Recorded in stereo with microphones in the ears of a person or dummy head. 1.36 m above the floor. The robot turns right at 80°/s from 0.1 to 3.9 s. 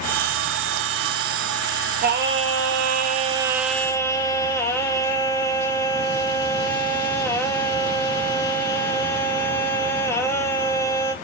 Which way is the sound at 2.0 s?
135° right.